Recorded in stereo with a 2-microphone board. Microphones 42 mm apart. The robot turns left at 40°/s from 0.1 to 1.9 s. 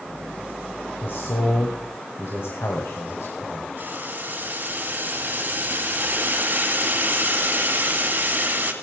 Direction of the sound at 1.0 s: 115° left.